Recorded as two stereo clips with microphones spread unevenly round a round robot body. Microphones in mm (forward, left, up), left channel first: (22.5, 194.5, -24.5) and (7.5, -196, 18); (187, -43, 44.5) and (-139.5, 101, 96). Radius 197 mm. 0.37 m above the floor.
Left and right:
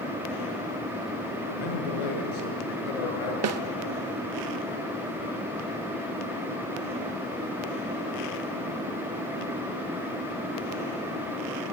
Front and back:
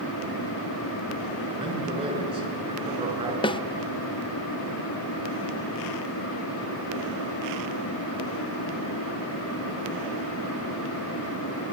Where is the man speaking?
80° left, 6 m.